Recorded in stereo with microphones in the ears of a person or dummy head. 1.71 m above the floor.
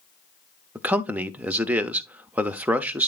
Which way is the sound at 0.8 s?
10° right (ahead or behind).